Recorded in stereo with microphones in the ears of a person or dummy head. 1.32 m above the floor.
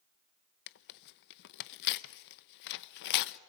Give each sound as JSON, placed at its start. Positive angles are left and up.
{"t": 0.7, "sound": "tearing paper", "side_deg": 60, "distance_m": 0.6}